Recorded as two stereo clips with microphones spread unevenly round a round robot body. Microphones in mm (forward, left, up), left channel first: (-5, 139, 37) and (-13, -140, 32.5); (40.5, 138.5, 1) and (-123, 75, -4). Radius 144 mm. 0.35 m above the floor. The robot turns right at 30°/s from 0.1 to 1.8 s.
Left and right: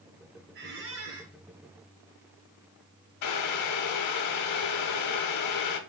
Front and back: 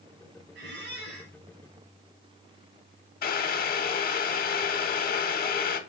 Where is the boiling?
60° left, 0.6 m.